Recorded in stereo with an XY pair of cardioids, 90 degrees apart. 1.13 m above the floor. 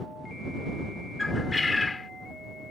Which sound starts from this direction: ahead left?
A bird, at 1.2 s.